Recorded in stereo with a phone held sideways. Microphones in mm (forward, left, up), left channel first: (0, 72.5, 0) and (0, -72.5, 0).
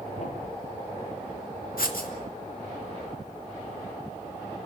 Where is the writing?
85° left, 2.5 m.